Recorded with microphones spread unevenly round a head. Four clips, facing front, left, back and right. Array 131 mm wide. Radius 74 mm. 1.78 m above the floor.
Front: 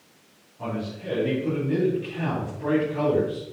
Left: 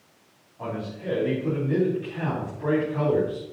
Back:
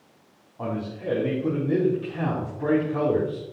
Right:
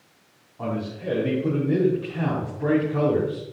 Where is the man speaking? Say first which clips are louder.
Right 3 dB, back 1 dB; 175° right, 4 m.